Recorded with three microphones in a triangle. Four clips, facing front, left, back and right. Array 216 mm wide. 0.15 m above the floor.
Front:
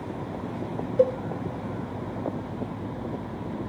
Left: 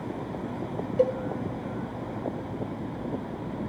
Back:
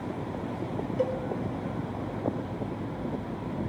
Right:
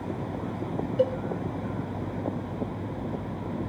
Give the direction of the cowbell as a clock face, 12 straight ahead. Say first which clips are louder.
Left 1 dB, front 8 dB; 11 o'clock.